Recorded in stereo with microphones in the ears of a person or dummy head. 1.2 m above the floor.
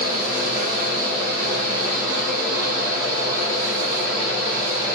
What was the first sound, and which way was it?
A fan, 55° left (ahead or behind).